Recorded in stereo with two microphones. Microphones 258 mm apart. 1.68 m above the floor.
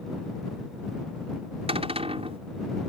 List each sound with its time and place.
1.7 s a cupboard door: 25° right (ahead or behind)